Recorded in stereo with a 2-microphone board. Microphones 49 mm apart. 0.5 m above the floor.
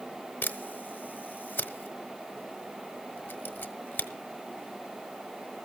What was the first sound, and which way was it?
A camera shutter, 40° left (ahead or behind).